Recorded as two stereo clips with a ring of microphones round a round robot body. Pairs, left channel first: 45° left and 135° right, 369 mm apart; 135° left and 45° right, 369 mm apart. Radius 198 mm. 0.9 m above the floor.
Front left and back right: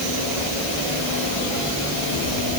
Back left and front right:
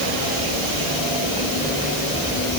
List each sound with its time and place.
Only background noise.